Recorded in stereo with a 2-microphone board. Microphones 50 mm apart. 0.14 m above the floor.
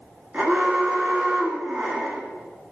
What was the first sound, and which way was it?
An alarm, 30° right (ahead or behind).